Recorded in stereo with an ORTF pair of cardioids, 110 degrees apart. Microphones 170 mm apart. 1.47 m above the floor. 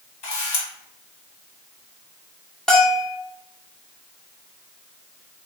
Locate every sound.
0.2 s a camera shutter: 45° left, 1.9 m
2.7 s a bell: 5° left, 1.3 m